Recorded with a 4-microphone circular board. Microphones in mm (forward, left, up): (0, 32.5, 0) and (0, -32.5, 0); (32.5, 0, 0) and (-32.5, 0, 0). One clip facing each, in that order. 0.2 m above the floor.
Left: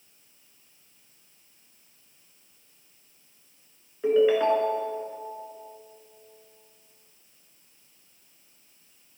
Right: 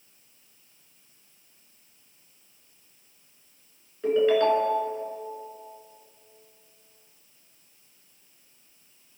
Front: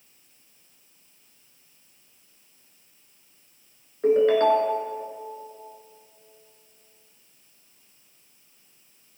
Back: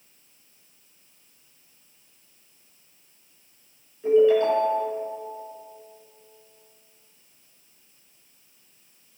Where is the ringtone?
15° left, 2.0 m.